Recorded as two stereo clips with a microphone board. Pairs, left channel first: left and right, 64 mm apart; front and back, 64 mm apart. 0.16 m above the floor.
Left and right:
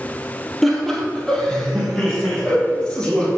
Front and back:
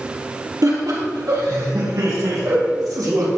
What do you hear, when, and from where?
0.6 s laughter: 175° left, 5 m; by 3.3 s 170° left, 8 m